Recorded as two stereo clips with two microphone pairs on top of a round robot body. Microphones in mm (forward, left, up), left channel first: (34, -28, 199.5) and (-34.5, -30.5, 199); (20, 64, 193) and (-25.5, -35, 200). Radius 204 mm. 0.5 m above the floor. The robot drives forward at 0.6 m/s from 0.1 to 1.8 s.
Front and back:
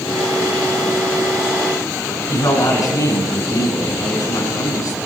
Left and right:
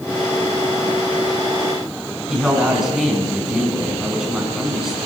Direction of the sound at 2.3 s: 30° right.